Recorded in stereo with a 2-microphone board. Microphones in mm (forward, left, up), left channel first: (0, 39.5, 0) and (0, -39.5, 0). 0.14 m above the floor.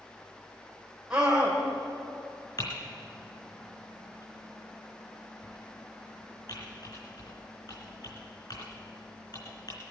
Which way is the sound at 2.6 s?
55° left (ahead or behind).